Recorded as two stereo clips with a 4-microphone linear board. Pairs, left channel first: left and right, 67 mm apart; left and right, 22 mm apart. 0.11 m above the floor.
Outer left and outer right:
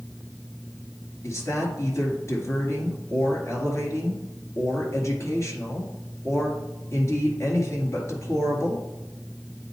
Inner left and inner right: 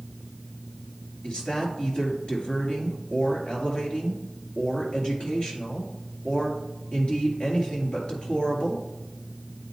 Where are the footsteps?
No footsteps in this recording.